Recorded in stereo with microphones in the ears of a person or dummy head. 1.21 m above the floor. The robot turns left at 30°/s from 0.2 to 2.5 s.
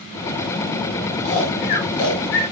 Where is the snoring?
45° left (ahead or behind), 3.5 m; by 2.4 s 80° left, 3.5 m.